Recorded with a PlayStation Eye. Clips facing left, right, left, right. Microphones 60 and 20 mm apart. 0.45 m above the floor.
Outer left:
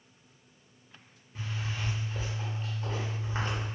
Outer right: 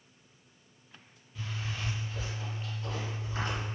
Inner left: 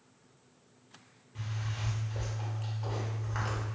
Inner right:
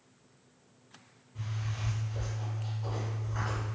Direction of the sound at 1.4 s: 40° left (ahead or behind).